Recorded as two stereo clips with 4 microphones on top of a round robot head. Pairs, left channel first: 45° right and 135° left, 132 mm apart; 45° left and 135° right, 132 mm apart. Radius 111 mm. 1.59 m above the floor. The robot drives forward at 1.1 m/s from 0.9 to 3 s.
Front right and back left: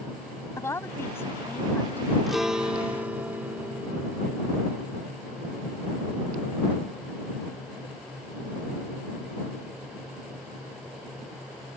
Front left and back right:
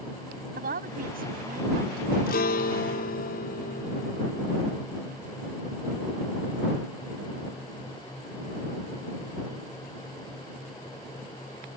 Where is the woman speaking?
115° right; by 2.2 s 120° right.